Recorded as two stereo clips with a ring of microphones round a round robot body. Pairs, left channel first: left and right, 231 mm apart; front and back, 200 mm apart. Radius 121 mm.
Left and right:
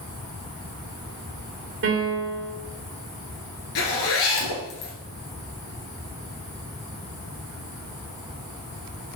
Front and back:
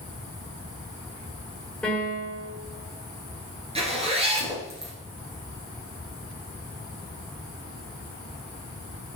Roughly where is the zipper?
Behind left.